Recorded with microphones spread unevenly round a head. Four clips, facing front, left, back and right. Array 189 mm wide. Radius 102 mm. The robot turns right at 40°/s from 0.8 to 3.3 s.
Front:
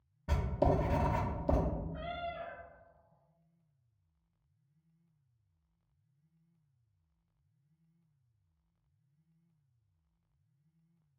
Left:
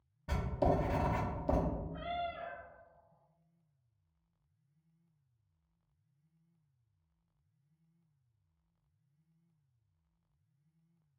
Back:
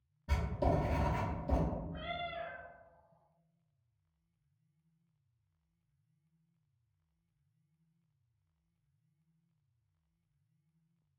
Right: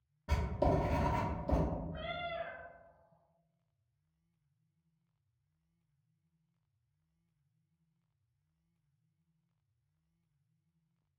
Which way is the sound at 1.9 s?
80° right.